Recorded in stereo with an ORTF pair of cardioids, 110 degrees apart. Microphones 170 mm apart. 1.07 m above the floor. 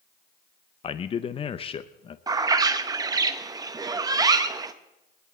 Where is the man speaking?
35° left, 0.6 m.